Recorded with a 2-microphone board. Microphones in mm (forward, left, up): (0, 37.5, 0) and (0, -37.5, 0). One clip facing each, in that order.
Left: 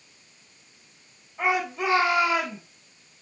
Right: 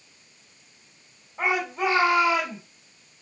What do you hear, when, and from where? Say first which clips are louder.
1.4 s a shout: even; 30° right (ahead or behind), 4 m